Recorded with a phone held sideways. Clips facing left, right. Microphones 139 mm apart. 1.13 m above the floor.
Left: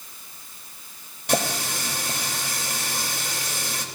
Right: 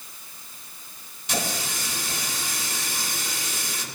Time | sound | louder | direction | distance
1.3 | a running tap | left 5 dB | 60° left (ahead or behind) | 3 m